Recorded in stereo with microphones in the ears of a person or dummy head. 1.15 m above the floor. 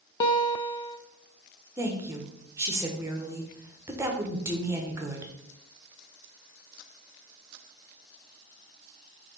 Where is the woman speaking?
10° right (ahead or behind), 0.9 m.